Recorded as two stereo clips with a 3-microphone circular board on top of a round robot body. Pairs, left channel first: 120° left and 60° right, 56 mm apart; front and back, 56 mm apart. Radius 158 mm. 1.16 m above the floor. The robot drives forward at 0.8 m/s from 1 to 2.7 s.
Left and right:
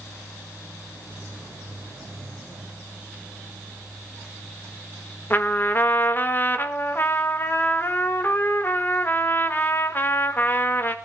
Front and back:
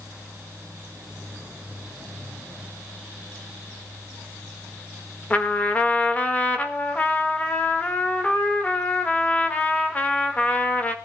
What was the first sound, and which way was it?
A trumpet, 65° left.